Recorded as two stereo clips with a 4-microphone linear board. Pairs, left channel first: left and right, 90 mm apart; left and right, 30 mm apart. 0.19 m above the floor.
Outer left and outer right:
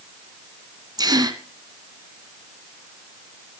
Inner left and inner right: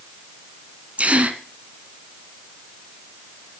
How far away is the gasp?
About 1.5 m.